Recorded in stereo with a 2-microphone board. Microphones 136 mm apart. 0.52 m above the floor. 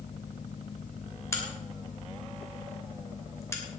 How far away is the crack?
About 2.5 m.